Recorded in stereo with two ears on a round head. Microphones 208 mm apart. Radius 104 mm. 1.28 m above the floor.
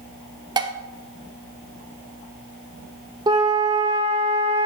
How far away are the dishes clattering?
About 0.6 m.